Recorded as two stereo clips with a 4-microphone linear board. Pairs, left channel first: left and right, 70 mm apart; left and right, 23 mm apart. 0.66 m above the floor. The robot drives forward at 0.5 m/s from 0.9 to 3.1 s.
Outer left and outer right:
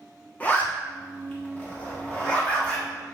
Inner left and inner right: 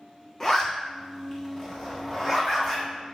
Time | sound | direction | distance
0.4 | a zipper | 25° left (ahead or behind) | 1.2 m